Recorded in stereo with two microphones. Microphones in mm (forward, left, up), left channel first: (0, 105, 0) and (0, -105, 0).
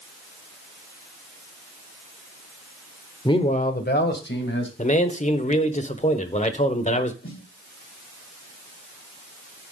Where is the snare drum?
75° left (ahead or behind), 5.5 m.